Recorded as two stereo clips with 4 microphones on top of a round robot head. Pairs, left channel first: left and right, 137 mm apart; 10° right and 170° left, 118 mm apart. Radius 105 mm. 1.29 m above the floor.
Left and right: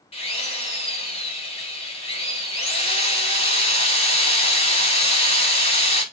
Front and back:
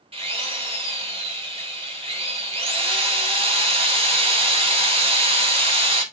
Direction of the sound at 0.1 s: 130° left.